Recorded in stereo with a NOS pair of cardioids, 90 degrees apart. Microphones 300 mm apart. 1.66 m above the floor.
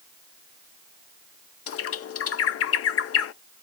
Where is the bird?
50° left, 0.5 m.